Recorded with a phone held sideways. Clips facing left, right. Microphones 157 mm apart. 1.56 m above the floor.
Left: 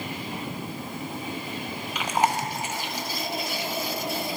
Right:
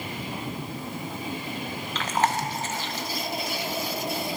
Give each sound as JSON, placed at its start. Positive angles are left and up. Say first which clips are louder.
{"t": 1.9, "sound": "chewing", "louder": "left 1 dB", "side_deg": 15, "distance_m": 0.8}